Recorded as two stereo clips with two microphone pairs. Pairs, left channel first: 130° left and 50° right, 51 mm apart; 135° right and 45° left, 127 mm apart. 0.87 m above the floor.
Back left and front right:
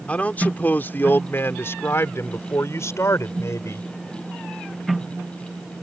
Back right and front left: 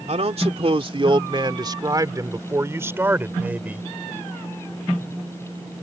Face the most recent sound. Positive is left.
turn(degrees=125)